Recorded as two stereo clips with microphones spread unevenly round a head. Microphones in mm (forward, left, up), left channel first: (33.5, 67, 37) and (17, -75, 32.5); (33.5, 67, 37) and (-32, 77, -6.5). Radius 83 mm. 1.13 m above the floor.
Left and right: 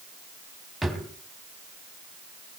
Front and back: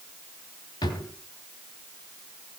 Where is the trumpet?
I don't hear a trumpet.